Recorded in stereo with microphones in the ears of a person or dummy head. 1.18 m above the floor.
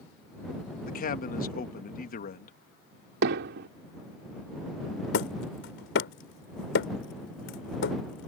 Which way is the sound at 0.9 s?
45° left (ahead or behind).